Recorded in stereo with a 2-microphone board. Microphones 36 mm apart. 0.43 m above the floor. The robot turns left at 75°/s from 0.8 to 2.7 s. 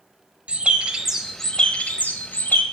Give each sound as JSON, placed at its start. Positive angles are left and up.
{"t": 0.5, "sound": "a bird", "azimuth_deg": -145, "distance_m": 1.1}